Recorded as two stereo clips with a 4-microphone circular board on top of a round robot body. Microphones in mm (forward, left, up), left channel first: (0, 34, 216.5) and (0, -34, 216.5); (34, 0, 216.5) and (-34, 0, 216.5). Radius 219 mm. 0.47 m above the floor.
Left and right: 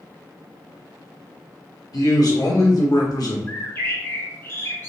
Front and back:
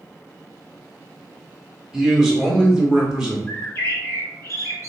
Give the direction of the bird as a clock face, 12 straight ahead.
11 o'clock.